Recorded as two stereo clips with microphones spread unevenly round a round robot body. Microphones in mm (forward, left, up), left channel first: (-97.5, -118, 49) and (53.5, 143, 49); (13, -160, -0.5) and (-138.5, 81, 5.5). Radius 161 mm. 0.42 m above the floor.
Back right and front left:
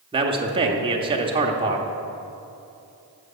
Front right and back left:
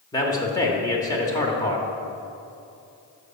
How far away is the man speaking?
About 0.8 m.